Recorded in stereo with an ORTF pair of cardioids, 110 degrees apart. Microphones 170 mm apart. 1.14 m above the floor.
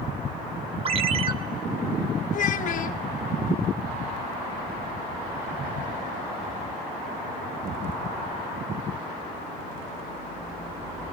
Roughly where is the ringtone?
Ahead right.